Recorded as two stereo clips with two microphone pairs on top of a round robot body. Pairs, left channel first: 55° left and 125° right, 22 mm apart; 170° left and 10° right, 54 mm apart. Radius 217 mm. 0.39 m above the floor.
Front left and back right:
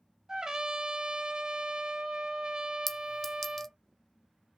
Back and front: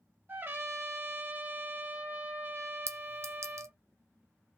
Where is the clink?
25° right, 0.6 m.